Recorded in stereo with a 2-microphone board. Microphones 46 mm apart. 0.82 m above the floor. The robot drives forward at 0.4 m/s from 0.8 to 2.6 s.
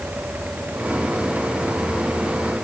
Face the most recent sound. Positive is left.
No sound to turn to.